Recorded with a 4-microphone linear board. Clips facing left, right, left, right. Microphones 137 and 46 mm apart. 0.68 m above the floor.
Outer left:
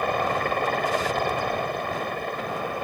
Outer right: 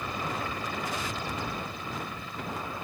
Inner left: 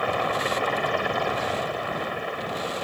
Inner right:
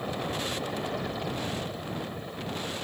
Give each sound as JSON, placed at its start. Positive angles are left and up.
{"t": 0.0, "sound": "a helicopter", "side_deg": 65}